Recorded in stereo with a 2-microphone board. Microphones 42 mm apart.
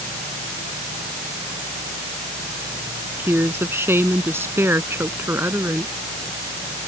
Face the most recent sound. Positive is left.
turn(degrees=-70)  # may be behind; listen again after turning